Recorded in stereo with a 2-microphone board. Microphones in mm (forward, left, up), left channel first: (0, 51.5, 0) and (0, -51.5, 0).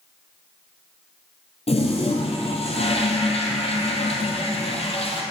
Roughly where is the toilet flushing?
Left.